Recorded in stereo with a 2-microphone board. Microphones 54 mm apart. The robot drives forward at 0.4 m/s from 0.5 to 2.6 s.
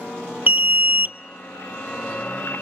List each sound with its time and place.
0.5 s an alarm: 35° right (ahead or behind), 0.7 m; by 1.2 s 40° right (ahead or behind), 0.6 m